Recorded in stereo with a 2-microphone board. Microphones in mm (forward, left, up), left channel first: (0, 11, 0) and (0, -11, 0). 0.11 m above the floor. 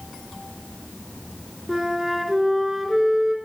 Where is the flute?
10° right (ahead or behind), 0.8 m.